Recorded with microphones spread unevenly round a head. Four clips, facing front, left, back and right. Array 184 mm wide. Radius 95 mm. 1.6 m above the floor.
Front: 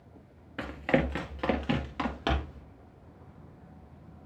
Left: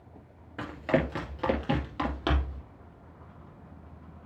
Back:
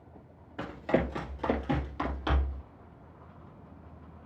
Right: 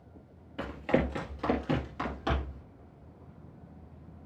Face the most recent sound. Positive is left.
turn(degrees=45)